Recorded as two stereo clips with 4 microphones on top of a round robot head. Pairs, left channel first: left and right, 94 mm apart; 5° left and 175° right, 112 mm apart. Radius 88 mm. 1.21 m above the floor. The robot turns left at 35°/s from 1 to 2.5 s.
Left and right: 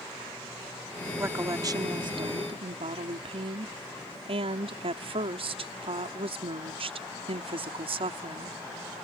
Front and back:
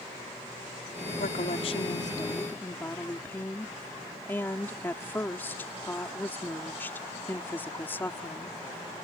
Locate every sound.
1.2 s a woman speaking: 25° right; by 8.6 s 70° right